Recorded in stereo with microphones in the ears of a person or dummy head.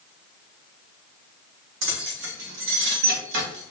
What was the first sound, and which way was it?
Keys jangling, 60° right (ahead or behind).